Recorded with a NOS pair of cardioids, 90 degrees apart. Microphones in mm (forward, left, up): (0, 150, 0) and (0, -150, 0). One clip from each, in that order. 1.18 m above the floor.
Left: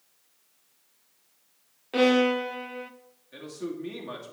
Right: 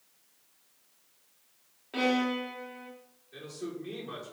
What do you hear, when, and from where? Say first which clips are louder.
1.9 s a violin: left 7 dB; 35° left, 0.6 m
3.3 s a man speaking: left 4 dB; 60° left, 2.5 m